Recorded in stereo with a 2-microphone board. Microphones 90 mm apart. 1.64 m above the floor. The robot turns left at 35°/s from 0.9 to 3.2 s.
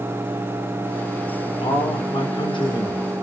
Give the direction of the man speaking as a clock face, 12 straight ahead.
9 o'clock.